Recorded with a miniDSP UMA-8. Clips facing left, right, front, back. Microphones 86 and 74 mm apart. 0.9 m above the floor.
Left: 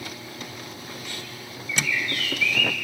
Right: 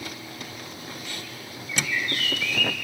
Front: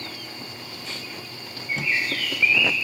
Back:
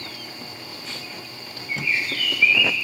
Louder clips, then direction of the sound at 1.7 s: Left 1 dB, even; 40° right.